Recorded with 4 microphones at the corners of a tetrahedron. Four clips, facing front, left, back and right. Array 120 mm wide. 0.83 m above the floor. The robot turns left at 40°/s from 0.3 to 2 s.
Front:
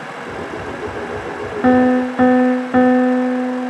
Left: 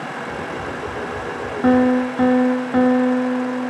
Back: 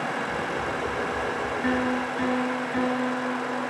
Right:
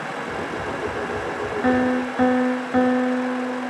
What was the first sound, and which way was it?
A piano, 20° left.